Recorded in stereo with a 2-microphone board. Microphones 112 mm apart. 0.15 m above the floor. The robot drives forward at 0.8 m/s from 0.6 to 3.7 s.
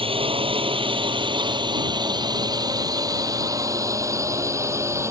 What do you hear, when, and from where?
0.0 s a drone: 55° right (ahead or behind); by 5.1 s 25° right (ahead or behind)